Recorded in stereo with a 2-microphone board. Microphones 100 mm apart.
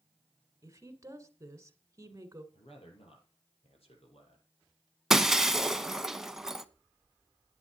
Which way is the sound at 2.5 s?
75° left (ahead or behind).